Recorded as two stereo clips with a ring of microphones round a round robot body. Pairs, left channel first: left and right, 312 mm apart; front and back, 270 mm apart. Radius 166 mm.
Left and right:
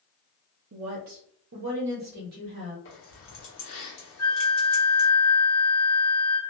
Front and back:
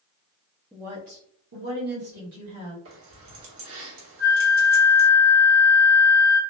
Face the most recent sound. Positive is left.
turn(degrees=140)